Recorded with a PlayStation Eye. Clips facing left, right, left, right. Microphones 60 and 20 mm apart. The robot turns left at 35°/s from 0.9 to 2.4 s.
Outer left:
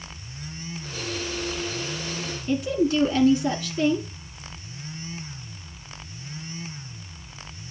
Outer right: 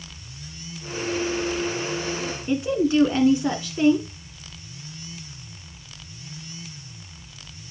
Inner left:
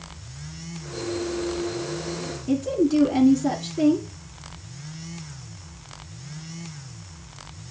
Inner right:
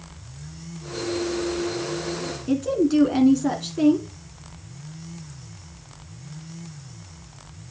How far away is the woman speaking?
About 1.2 m.